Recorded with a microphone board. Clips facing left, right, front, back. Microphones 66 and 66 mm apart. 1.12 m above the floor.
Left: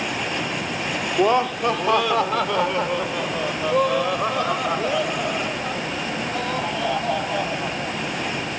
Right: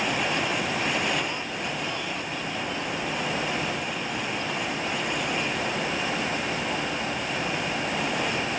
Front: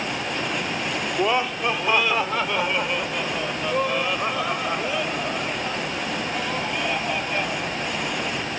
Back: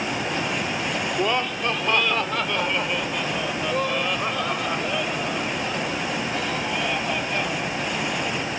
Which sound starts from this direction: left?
Laughter, at 1.1 s.